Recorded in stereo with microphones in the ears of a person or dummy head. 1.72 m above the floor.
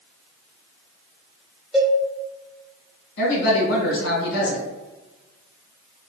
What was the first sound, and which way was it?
A cowbell, centre (ahead or behind).